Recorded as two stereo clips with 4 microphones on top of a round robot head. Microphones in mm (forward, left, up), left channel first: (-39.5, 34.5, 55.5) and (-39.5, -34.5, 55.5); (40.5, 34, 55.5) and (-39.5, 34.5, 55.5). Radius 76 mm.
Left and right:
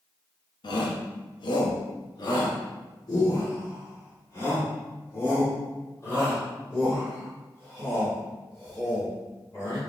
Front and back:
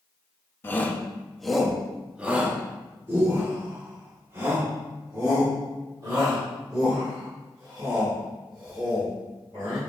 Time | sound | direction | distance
0.6 | a shout | 65° left | 1.1 m